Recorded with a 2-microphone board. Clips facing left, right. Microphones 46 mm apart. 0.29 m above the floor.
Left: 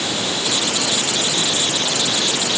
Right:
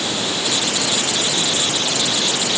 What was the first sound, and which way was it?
Only background noise.